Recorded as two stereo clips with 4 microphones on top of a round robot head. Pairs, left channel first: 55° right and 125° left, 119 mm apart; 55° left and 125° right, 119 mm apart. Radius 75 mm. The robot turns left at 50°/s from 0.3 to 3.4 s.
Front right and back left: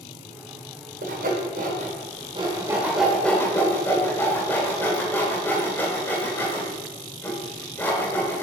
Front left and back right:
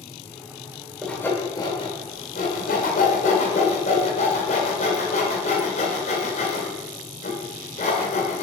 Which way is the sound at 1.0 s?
140° left.